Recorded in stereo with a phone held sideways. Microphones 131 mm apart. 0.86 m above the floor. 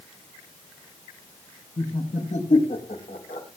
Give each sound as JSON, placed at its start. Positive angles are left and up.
{"t": 1.8, "sound": "laughter", "side_deg": 80, "distance_m": 5.0}